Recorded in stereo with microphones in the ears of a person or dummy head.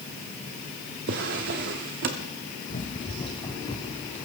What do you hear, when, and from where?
1.1 s a drawer: 45° right (ahead or behind), 1.1 m
2.7 s running footsteps: 30° left (ahead or behind), 1.6 m; by 4.3 s 15° left (ahead or behind), 3 m